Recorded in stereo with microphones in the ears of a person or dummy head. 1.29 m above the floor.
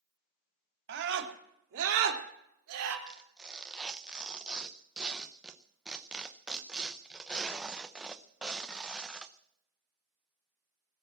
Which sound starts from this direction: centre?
Tearing paper, at 3.1 s.